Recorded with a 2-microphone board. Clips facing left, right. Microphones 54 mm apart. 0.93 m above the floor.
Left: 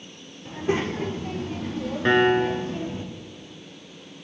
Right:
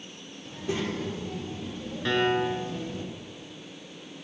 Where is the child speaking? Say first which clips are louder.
Left 6 dB; 40° left (ahead or behind), 2.5 m; by 3.0 s 35° left (ahead or behind), 1.7 m.